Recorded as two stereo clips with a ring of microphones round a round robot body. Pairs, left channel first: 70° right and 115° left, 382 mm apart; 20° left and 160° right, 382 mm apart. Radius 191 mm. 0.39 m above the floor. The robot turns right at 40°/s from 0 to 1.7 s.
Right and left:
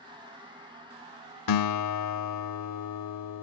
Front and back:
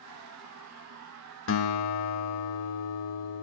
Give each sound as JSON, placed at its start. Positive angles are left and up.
{"t": 1.5, "sound": "a guitar", "azimuth_deg": -35, "distance_m": 0.8}